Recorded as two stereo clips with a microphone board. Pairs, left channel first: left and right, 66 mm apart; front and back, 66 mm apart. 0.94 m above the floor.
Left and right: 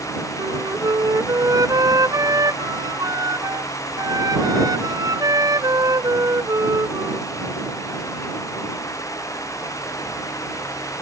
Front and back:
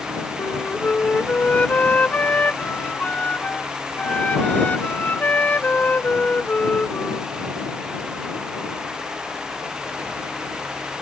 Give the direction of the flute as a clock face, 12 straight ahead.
2 o'clock.